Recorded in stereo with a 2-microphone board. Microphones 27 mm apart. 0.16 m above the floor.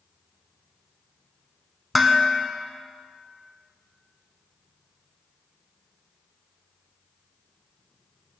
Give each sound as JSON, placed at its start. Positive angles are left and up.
{"t": 1.9, "sound": "dishes clattering", "side_deg": -5, "distance_m": 0.8}